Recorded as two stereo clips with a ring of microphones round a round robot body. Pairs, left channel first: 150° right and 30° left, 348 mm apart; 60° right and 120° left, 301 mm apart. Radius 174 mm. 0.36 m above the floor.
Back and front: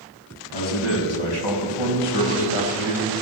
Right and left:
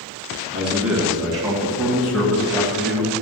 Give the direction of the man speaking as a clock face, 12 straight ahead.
5 o'clock.